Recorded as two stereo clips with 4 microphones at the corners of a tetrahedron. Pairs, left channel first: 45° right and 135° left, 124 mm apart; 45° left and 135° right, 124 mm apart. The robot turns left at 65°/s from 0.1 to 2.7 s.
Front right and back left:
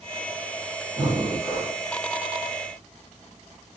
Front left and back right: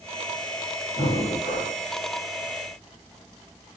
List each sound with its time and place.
0.9 s breathing: 70° left, 1.9 m; by 1.8 s 15° left, 1.9 m